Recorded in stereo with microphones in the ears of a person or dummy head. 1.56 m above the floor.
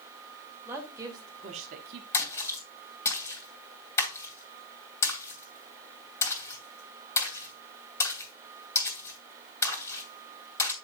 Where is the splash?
15° left (ahead or behind), 3 m.